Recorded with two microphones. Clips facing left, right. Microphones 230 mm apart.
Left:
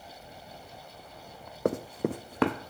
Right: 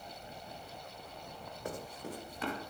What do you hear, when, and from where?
1.6 s running footsteps: 70° left (ahead or behind), 0.6 m; by 2.7 s 75° left (ahead or behind), 1.1 m